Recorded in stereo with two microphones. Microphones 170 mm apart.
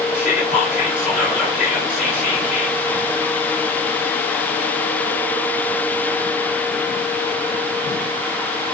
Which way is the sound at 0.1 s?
10° right (ahead or behind).